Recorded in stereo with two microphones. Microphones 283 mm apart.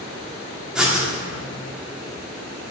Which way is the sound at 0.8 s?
Centre (ahead or behind).